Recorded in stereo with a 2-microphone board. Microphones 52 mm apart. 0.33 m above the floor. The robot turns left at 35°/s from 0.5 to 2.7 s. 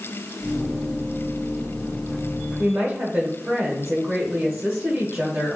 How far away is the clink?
I don't hear a clink.